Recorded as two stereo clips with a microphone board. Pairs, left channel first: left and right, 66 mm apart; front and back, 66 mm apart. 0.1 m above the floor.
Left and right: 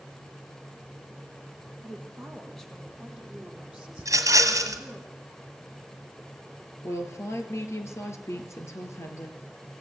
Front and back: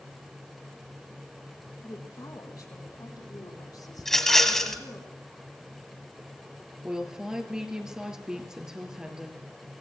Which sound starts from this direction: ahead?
A woman speaking, at 1.8 s.